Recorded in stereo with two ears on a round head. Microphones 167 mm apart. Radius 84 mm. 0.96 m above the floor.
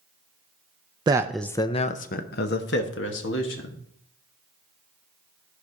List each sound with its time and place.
1.1 s a man speaking: 25° right (ahead or behind), 0.5 m; by 3.8 s 70° left (ahead or behind), 1.8 m